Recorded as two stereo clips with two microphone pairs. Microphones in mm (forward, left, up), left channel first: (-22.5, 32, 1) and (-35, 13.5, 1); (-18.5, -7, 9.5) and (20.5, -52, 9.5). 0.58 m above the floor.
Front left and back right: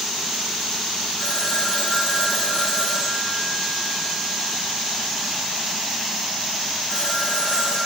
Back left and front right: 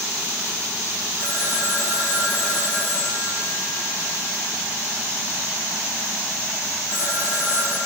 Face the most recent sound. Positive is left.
turn(degrees=-100)